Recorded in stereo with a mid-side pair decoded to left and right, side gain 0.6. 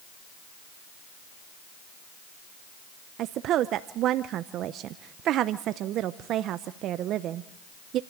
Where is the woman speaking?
60° right, 0.7 m.